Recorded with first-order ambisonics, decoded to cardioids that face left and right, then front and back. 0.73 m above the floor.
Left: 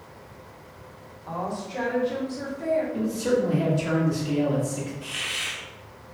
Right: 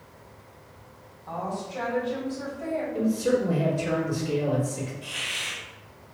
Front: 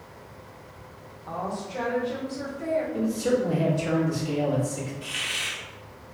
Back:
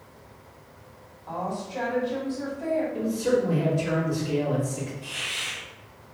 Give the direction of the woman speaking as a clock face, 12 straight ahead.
10 o'clock.